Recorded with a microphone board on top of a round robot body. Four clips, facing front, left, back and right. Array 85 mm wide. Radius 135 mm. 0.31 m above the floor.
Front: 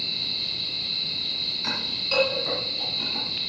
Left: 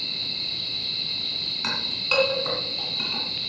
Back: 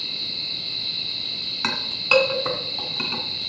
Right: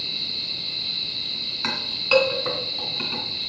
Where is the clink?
170° right, 2.5 m.